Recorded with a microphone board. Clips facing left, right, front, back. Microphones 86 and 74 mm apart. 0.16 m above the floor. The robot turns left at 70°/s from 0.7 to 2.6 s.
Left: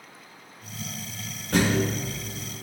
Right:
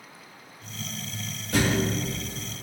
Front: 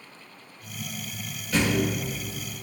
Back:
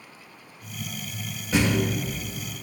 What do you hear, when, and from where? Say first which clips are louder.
1.5 s a thud: left 1 dB, back 1 dB; 120° left, 3.5 m; by 1.9 s 90° left, 3.5 m